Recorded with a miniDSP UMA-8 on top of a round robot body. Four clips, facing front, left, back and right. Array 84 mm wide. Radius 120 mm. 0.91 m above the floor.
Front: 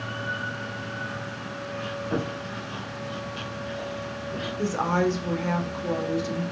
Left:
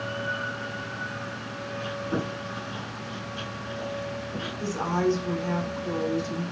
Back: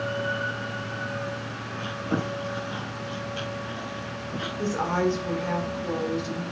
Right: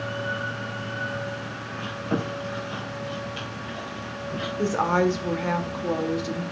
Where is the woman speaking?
85° right, 2 m.